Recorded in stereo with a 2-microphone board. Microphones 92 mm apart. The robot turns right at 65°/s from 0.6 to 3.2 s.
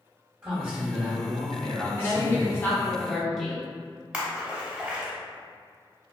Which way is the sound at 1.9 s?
95° left.